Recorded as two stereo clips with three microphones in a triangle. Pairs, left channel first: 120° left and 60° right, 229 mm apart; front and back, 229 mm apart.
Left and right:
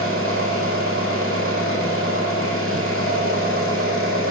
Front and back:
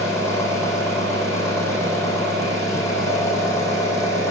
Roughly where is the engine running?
Right.